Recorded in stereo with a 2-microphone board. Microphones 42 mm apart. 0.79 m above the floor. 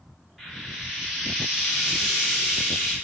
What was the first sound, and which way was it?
Frying, 5° right (ahead or behind).